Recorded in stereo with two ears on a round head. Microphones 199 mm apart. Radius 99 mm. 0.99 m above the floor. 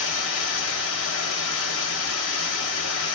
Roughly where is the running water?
Left.